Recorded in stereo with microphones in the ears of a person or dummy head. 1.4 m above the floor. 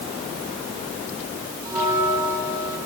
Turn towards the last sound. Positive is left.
turn(degrees=-20)  # may be behind; listen again after turning